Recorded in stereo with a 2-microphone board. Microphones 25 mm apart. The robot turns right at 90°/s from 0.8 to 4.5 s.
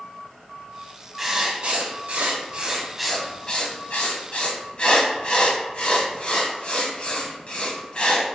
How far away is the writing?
About 0.5 m.